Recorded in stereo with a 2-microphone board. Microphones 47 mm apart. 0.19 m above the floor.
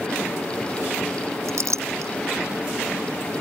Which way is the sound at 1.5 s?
70° right (ahead or behind).